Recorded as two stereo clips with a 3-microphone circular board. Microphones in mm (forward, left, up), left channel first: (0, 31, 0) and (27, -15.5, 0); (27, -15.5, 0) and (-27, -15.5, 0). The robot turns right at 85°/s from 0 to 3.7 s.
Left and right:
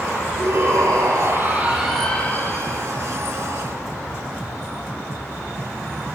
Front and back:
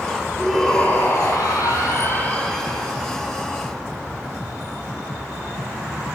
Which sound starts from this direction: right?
A shout, at 0.4 s.